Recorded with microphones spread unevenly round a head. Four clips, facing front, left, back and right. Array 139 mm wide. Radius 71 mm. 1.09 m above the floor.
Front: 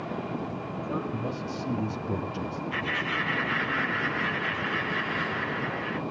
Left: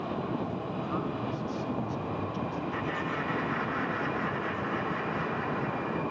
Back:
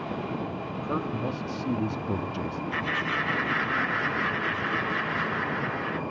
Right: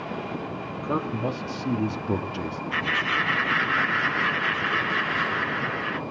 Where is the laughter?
80° right, 1.3 m.